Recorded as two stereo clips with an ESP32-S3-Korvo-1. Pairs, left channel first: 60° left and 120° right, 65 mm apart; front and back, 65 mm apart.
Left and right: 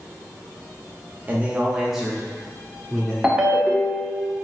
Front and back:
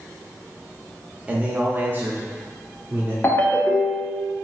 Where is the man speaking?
140° right, 0.8 m; by 3.1 s 125° left, 1.2 m.